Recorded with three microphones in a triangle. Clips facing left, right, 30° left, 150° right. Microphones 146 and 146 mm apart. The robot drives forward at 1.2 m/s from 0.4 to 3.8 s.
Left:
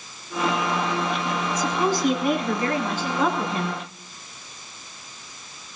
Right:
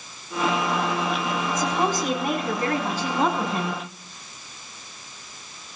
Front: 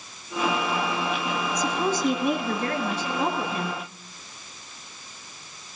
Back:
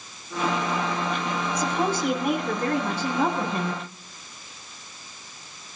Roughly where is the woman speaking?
Behind right.